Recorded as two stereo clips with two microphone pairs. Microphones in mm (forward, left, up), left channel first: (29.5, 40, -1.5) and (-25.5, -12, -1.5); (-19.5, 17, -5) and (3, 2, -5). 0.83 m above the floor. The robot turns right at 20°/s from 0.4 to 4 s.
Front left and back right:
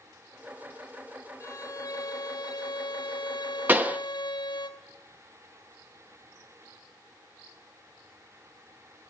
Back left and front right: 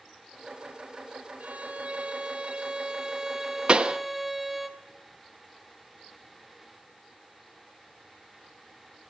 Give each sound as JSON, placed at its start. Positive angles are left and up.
{"t": 1.4, "sound": "a violin", "azimuth_deg": 5, "distance_m": 4.0}
{"t": 3.7, "sound": "a pop", "azimuth_deg": -80, "distance_m": 1.1}